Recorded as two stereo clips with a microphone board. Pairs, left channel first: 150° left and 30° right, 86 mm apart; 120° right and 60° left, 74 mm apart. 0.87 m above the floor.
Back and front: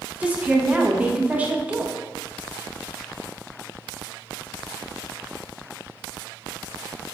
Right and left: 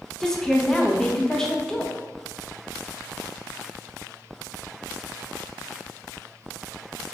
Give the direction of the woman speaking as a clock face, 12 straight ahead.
2 o'clock.